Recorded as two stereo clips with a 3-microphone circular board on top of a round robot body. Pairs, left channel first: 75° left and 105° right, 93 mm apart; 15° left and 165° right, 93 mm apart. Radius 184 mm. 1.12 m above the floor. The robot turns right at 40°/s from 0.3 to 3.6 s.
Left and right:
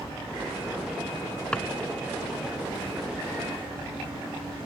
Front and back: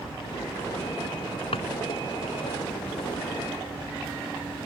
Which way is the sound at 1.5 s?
5° right.